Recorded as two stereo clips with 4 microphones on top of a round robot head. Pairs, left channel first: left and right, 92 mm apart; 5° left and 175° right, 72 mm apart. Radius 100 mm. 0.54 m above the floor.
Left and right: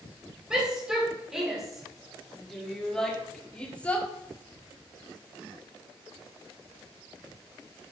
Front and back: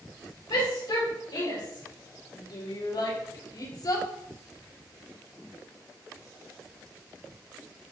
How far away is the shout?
About 3.5 m.